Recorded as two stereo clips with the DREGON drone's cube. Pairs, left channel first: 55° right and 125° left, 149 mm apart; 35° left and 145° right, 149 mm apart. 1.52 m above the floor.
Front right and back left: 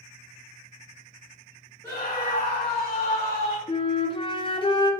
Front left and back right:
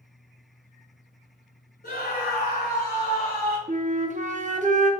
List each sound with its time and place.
1.8 s a scream: 15° left, 1.1 m; by 3.6 s 15° right, 2 m
3.7 s a flute: 110° right, 0.5 m